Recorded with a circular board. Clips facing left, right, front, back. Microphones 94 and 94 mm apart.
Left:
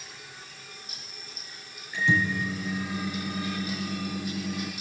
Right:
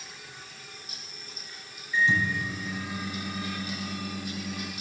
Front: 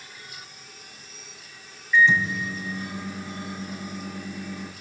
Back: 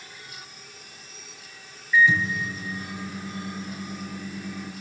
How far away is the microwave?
About 3.5 m.